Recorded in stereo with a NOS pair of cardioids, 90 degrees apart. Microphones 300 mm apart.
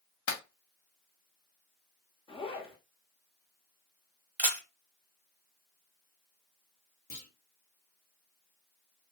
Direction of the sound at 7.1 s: 30° left.